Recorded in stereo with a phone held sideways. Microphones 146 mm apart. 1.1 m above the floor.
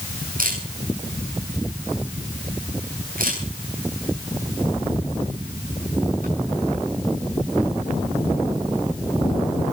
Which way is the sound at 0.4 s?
75° right (ahead or behind).